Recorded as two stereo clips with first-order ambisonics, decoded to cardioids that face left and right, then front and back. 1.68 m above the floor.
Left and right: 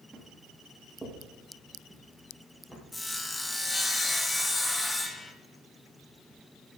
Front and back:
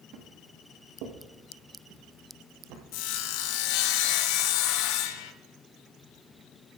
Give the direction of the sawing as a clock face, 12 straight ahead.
12 o'clock.